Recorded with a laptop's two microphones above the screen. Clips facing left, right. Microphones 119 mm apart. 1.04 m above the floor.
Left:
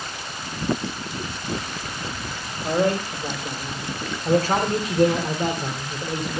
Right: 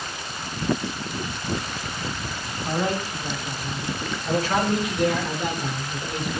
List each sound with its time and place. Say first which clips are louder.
2.6 s a man speaking: left 4 dB; 55° left (ahead or behind), 5.5 m; by 6.4 s 25° left (ahead or behind), 5 m